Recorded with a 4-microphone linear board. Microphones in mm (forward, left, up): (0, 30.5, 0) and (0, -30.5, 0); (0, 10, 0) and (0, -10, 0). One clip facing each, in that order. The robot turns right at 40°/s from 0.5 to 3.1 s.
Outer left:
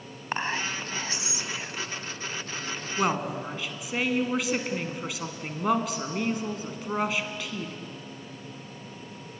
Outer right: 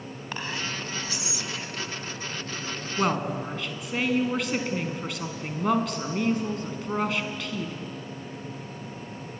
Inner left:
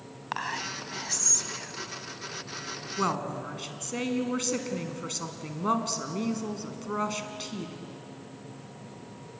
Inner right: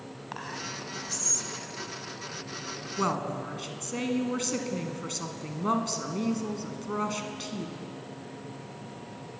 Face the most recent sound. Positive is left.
turn(degrees=5)  # may be behind; listen again after turning